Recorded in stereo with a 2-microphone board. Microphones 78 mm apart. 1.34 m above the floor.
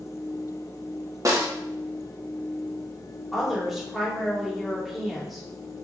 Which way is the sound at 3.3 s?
Centre (ahead or behind).